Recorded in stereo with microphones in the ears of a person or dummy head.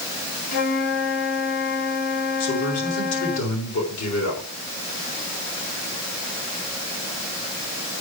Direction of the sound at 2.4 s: 85° left.